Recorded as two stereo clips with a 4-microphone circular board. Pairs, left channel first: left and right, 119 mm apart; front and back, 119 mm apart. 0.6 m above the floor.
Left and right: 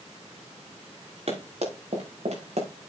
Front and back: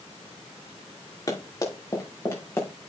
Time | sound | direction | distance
1.3 | running footsteps | 60° right | 5.5 m